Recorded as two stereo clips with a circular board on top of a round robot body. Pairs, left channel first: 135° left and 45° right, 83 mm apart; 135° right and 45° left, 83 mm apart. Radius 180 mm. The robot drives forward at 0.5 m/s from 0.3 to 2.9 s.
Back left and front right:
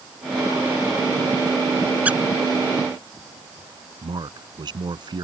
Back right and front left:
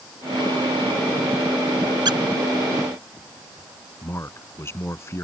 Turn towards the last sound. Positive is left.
turn(degrees=-75)